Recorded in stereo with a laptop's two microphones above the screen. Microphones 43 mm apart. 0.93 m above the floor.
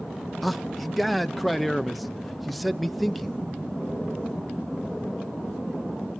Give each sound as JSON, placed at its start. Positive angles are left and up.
{"t": 0.4, "sound": "a man speaking", "side_deg": 0, "distance_m": 0.8}